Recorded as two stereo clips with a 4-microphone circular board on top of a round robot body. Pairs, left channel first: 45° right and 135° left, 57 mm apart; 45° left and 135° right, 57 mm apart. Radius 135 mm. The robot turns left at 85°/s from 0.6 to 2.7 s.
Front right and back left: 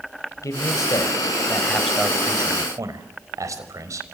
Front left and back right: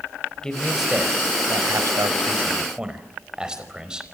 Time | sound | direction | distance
0.4 | a man speaking | 30° right | 4.5 m